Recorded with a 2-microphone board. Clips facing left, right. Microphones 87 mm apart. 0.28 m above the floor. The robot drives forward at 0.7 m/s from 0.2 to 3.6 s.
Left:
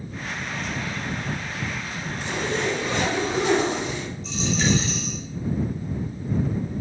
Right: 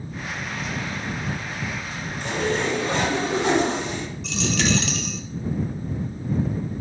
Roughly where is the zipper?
Right.